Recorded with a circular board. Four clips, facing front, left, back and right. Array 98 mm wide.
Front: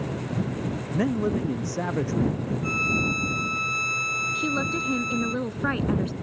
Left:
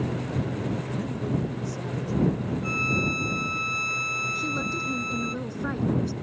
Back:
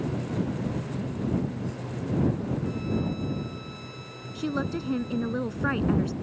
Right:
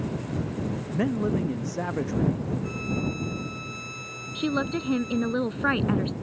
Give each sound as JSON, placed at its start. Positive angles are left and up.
{"t": 0.9, "sound": "a man speaking", "azimuth_deg": -40}
{"t": 2.6, "sound": "a violin", "azimuth_deg": 35}
{"t": 4.3, "sound": "a woman speaking", "azimuth_deg": -80}